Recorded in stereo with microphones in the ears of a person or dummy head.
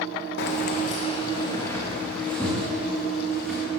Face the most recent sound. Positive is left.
turn(degrees=-5)  # may be behind; listen again after turning